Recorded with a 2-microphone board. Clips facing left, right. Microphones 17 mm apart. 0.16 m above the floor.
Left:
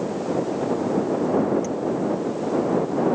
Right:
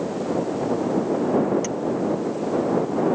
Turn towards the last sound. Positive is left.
turn(degrees=-40)  # may be behind; listen again after turning